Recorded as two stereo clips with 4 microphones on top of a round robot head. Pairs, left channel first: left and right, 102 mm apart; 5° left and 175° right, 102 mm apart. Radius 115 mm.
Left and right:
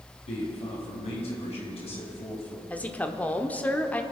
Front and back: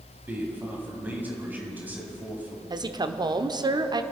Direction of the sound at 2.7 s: 160° left.